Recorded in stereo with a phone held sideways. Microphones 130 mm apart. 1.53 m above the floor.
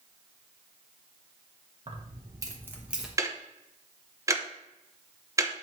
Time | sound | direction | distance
1.9 | keys jangling | 40° right (ahead or behind) | 1.4 m
3.2 | ticking | 25° right (ahead or behind) | 0.7 m